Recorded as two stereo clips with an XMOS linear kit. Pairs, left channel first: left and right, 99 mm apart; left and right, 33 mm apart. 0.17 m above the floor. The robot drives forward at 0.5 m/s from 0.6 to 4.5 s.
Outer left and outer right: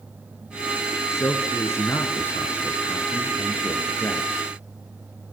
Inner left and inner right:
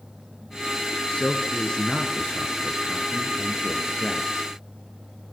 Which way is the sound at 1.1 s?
30° left (ahead or behind).